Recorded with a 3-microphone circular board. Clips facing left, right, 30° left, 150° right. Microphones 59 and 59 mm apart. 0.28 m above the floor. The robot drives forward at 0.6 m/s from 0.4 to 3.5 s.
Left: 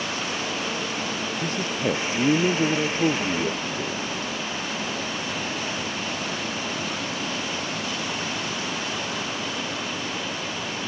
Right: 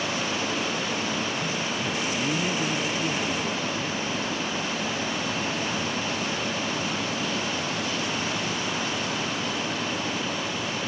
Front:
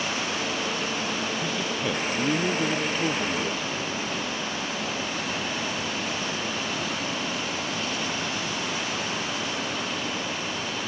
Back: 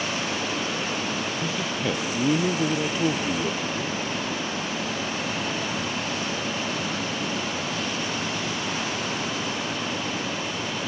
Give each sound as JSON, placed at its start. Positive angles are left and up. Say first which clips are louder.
{"t": 1.4, "sound": "a man speaking", "louder": "left 3 dB, back 1 dB", "azimuth_deg": 120}